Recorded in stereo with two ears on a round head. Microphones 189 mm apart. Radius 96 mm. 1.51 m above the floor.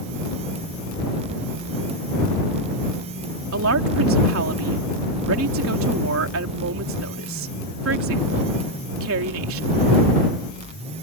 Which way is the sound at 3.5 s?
80° right.